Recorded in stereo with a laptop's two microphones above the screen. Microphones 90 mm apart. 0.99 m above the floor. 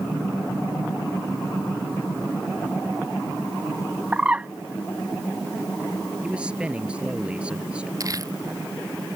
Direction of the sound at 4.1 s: 15° right (ahead or behind).